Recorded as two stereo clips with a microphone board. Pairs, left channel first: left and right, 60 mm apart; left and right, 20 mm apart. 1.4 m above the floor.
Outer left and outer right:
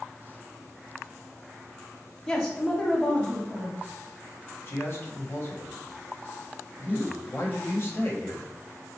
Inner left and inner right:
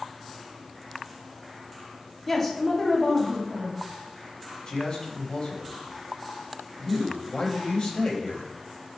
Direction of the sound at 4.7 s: 40° left (ahead or behind).